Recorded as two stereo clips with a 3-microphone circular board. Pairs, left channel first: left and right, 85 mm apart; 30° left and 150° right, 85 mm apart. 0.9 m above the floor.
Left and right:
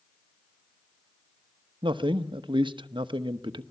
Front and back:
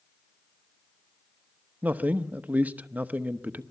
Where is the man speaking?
80° right, 1.0 m.